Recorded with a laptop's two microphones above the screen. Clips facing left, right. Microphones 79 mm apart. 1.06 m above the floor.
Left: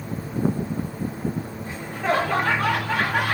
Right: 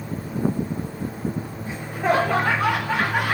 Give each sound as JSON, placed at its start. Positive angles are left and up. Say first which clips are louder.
{"t": 1.6, "sound": "laughter", "louder": "right 3 dB", "side_deg": -10, "distance_m": 0.8}